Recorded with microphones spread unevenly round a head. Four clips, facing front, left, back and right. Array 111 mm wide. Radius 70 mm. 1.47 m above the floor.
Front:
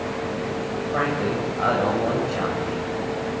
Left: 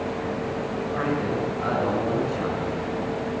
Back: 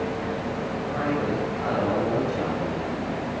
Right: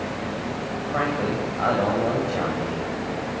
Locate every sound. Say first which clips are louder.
0.9 s a man speaking: right 2 dB, front 2 dB; 50° right, 9 m; by 2.9 s 55° right, 11 m